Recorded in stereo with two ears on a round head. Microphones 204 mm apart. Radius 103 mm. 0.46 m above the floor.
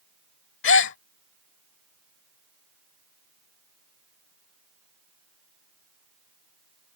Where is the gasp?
55° left (ahead or behind).